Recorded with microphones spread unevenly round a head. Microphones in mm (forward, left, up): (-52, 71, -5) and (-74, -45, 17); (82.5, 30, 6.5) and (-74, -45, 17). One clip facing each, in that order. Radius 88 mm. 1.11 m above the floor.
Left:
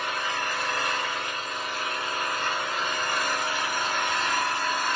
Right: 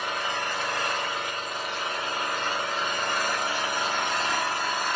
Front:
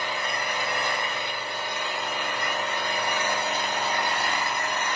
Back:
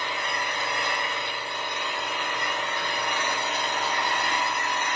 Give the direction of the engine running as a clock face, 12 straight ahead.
1 o'clock.